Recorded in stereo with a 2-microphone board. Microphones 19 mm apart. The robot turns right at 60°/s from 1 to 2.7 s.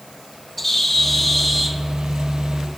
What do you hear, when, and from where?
0.6 s a bird: 10° left (ahead or behind), 0.6 m; by 2.8 s 20° right (ahead or behind), 0.6 m